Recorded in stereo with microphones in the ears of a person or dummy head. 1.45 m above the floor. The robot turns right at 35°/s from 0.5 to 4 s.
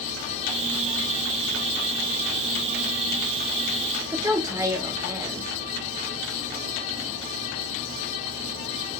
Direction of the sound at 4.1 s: 15° right (ahead or behind).